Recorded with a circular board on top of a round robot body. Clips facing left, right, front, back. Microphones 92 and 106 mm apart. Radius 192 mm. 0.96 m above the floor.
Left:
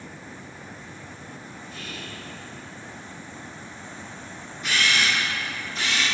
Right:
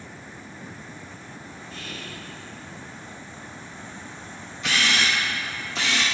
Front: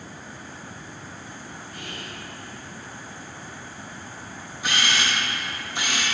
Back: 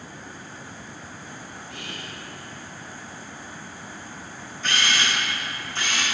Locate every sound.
1.7 s whispering: 175° left, 1.4 m
4.6 s a camera shutter: 80° right, 0.6 m